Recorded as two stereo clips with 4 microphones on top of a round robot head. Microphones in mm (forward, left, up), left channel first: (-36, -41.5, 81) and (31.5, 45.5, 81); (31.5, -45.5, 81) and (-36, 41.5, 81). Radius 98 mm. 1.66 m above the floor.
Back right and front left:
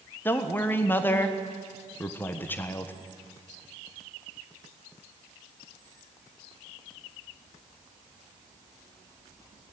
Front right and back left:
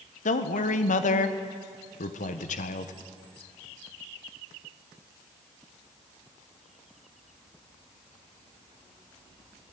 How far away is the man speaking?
About 1.4 m.